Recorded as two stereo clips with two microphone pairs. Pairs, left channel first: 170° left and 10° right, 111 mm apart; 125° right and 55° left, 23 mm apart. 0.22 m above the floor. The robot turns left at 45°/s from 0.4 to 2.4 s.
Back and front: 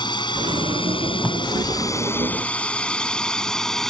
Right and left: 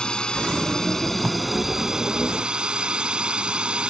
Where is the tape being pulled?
80° left; by 1.4 s 75° left.